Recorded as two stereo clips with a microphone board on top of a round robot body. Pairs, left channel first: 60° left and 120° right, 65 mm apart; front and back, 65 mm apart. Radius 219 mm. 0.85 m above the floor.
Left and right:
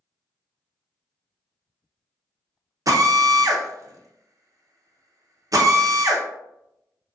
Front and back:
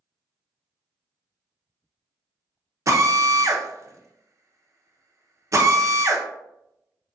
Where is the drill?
145° right, 0.7 m.